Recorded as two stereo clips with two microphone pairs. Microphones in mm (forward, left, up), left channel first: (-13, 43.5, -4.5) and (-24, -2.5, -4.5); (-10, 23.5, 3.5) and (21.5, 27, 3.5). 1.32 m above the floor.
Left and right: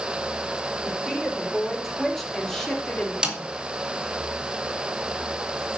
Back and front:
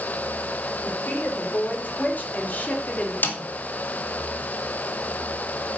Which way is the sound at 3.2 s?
Straight behind.